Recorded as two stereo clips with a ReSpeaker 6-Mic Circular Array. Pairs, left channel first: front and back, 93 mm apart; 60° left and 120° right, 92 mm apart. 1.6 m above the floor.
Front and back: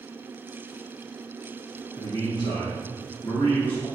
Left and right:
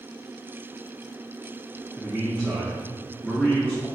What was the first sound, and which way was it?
A man speaking, 25° right.